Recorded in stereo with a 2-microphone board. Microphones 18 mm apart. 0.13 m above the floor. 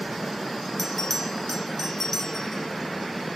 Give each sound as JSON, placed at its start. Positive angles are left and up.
{"t": 0.8, "sound": "a bell", "side_deg": 10, "distance_m": 0.9}